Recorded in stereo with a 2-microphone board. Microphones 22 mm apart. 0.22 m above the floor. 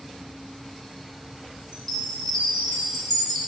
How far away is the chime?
About 2.5 m.